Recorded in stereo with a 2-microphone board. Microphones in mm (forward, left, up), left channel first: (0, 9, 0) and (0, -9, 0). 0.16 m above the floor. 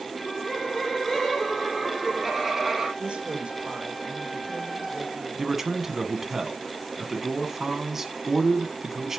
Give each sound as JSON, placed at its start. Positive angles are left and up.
{"t": 0.1, "sound": "laughter", "side_deg": 30, "distance_m": 4.5}
{"t": 3.0, "sound": "a woman speaking", "side_deg": -70, "distance_m": 3.5}
{"t": 5.4, "sound": "a man speaking", "side_deg": -20, "distance_m": 1.1}